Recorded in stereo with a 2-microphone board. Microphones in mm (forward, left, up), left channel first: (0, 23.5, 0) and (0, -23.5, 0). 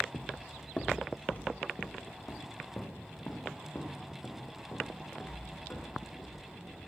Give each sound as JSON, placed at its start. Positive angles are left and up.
{"t": 0.1, "sound": "footsteps", "side_deg": 15, "distance_m": 0.5}